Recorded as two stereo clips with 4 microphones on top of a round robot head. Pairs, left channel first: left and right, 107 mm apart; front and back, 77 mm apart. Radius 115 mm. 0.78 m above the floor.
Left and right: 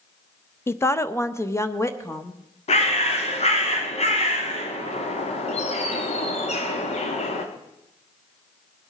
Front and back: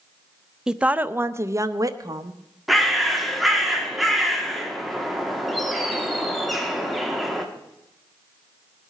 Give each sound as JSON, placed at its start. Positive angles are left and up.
{"t": 0.7, "sound": "a woman speaking", "azimuth_deg": 110, "distance_m": 0.7}
{"t": 2.7, "sound": "a bird", "azimuth_deg": 90, "distance_m": 2.0}